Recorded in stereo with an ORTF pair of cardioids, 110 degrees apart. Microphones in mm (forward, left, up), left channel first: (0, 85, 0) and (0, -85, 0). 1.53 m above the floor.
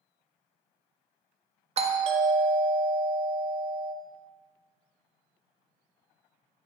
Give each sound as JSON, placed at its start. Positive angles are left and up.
{"t": 1.8, "sound": "a doorbell", "azimuth_deg": -40, "distance_m": 0.5}